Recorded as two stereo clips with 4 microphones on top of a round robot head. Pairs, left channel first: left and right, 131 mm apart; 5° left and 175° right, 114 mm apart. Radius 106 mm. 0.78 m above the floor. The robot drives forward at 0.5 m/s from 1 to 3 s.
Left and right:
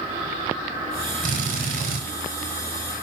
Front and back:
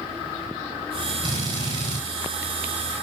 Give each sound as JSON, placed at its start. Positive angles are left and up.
{"t": 1.2, "sound": "a drill", "azimuth_deg": -115, "distance_m": 5.0}